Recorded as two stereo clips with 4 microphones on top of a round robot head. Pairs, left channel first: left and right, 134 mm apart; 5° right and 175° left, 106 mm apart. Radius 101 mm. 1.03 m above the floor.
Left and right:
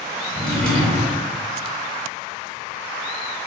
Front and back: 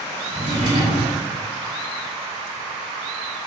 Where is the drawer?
175° left, 1.1 m.